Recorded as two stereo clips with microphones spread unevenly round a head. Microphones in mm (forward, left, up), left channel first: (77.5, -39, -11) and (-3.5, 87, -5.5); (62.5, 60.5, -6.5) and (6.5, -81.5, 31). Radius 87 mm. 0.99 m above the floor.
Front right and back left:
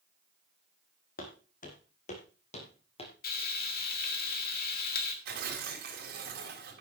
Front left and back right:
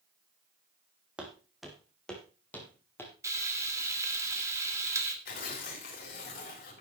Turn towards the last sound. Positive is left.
turn(degrees=110)